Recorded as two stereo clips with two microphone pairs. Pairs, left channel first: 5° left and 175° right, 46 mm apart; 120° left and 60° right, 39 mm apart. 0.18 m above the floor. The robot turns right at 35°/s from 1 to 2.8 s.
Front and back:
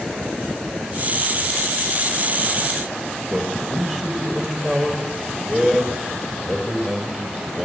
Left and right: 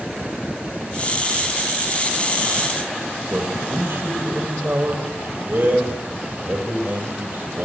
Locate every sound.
3.3 s a man speaking: 80° right, 5 m